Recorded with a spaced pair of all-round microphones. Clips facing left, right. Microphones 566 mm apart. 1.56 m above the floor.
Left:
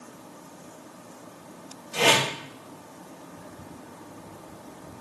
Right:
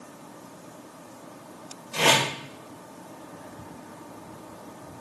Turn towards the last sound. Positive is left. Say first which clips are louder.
# left 1 dB
turn(degrees=5)  # may be behind; listen again after turning